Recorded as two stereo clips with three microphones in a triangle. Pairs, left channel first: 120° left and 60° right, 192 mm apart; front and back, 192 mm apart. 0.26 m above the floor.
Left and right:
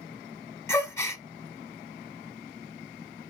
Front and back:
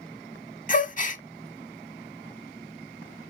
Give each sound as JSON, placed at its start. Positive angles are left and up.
{"t": 0.7, "sound": "a gasp", "azimuth_deg": 45, "distance_m": 0.6}